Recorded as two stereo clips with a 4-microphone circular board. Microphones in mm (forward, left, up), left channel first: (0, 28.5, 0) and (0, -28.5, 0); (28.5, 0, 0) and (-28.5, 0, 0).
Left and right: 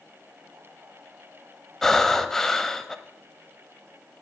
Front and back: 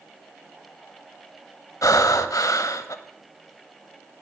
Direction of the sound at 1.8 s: 10° left.